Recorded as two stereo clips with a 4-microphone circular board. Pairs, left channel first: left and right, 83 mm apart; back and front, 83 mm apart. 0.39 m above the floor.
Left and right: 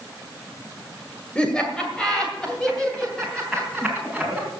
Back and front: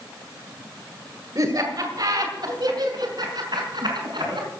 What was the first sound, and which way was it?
Laughter, 20° left.